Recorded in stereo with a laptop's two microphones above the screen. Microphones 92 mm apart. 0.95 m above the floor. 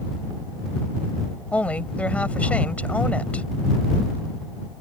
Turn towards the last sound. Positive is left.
turn(degrees=15)  # may be behind; listen again after turning